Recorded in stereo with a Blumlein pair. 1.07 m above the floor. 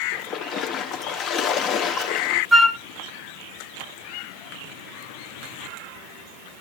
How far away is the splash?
About 1.1 m.